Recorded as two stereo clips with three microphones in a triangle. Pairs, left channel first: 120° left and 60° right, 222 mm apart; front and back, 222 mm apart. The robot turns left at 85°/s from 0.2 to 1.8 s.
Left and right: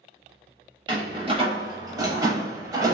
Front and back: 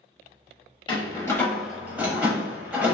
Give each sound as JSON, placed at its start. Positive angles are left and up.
{"t": 0.9, "sound": "a door slam", "azimuth_deg": -25, "distance_m": 0.8}